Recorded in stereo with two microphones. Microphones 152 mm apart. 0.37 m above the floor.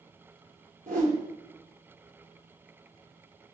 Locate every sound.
0.9 s a whoosh: 60° right (ahead or behind), 2.0 m